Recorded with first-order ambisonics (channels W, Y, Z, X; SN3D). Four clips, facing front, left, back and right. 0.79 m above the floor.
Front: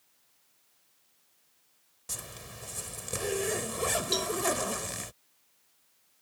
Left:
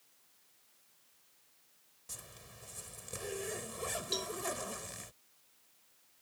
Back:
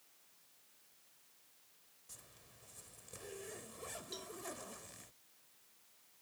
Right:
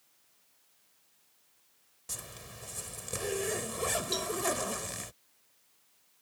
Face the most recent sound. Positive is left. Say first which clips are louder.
# right 4 dB, front 19 dB
turn(degrees=-5)